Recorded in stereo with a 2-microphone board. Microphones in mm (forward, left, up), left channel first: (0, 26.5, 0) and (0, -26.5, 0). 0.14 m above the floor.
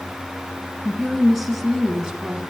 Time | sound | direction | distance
0.8 | a woman speaking | 5° left (ahead or behind) | 1.7 m